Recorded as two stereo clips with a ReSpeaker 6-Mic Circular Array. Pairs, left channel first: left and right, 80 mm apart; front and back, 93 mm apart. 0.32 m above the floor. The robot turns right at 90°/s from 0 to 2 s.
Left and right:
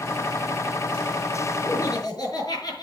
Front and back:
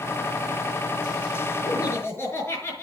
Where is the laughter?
30° left, 5.5 m; by 2.8 s 60° left, 5.5 m.